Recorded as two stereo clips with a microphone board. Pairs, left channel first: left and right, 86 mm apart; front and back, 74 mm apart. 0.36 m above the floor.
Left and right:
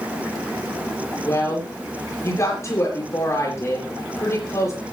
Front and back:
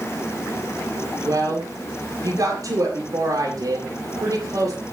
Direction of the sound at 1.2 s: 145° left.